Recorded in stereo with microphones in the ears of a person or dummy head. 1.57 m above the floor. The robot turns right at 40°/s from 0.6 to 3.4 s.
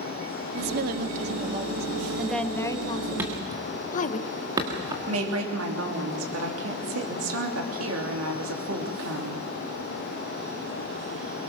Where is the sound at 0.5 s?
60° right, 1.5 m; by 4.2 s 55° left, 1.5 m.